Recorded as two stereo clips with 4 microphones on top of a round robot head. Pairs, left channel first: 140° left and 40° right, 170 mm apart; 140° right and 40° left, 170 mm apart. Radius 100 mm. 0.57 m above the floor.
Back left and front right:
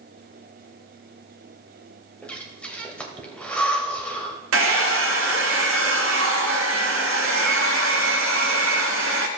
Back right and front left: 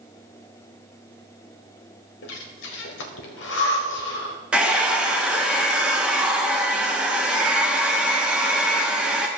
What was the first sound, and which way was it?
Breathing, 140° right.